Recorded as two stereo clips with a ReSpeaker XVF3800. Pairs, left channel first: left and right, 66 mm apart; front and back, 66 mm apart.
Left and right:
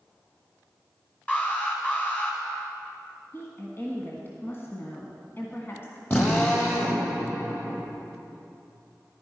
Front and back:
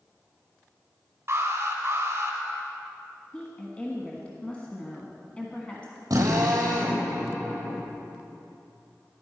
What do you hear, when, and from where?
1.3 s an alarm: 145° left, 2.5 m
3.3 s a woman speaking: 60° left, 1.3 m
6.1 s a drill: 145° left, 3.5 m